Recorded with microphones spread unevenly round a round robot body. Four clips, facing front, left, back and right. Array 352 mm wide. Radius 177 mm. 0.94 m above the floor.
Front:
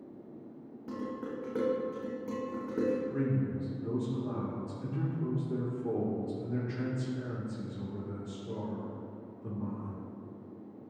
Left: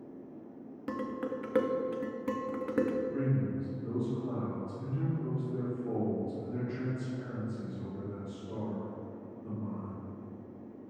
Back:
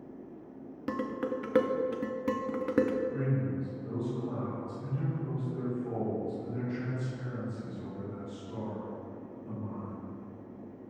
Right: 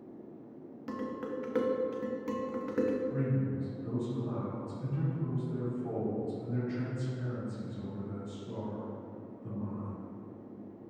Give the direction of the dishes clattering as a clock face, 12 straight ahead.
6 o'clock.